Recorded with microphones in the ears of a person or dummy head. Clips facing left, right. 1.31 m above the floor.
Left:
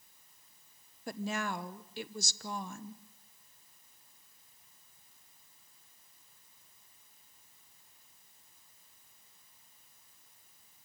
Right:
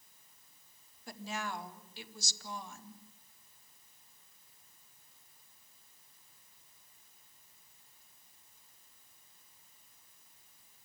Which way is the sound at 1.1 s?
50° left (ahead or behind).